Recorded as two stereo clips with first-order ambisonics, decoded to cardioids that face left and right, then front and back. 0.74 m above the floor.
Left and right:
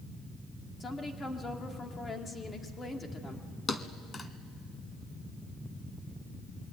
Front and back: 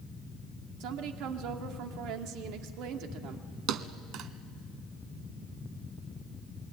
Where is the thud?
160° left, 0.9 m.